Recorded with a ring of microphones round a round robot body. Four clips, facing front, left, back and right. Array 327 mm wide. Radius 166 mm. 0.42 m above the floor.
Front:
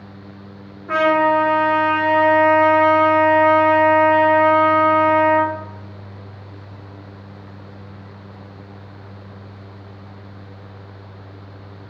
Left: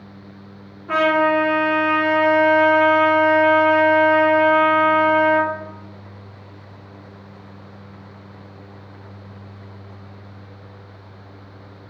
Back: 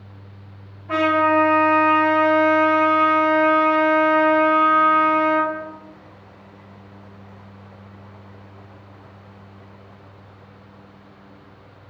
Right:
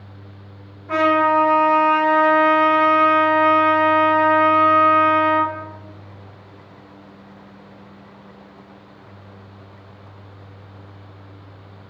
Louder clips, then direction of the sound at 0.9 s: Right 1 dB, front 2 dB; 30° left.